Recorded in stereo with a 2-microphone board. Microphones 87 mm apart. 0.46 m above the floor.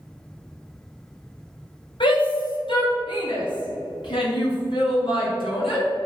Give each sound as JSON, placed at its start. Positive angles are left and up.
{"t": 2.0, "sound": "a shout", "side_deg": 70, "distance_m": 4.0}